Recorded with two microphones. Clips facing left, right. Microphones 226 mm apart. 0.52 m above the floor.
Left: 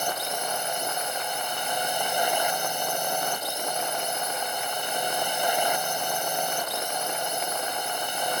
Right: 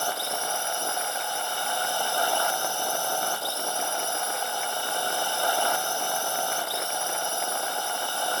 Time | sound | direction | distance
0.0 | a drone | 20° left (ahead or behind) | ?